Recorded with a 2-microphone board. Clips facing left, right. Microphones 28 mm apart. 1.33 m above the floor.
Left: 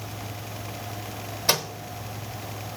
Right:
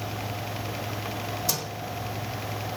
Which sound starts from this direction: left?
A microwave, at 1.5 s.